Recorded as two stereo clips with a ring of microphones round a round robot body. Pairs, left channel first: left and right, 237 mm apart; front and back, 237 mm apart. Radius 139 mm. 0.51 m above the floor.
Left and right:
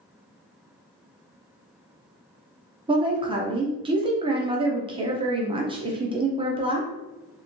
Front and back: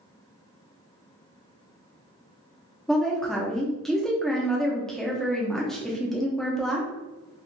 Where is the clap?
No clap in this recording.